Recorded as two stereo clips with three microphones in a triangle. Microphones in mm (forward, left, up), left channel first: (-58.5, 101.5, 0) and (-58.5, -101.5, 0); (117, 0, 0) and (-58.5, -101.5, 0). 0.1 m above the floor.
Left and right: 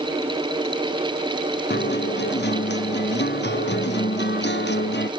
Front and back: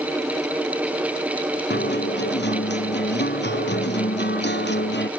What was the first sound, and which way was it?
A guitar, 60° left.